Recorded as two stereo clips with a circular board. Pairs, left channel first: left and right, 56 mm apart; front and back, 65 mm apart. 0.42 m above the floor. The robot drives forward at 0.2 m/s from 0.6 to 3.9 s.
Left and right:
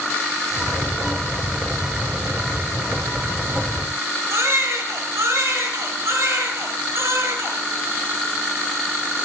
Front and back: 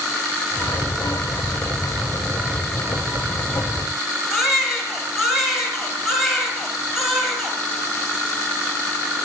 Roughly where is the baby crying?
Right.